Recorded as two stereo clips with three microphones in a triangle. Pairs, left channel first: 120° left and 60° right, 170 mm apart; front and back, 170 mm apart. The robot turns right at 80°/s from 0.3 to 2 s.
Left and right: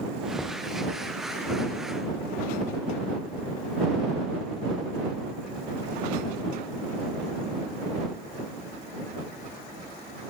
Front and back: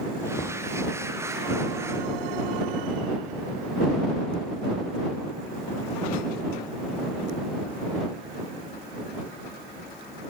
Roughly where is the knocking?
Ahead left.